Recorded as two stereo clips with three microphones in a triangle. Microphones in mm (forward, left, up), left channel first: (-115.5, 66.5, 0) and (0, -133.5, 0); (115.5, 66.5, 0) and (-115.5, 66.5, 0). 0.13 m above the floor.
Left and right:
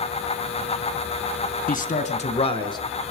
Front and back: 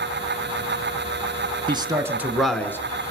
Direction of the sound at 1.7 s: 125° left.